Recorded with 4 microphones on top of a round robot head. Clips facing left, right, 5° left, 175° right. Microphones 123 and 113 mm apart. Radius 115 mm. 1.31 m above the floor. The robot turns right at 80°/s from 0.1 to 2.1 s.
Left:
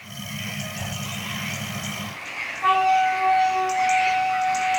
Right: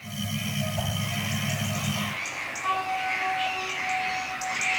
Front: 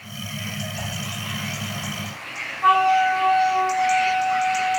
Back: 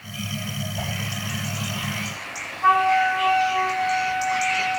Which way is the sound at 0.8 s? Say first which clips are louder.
Right 4 dB, back 4 dB; 100° right.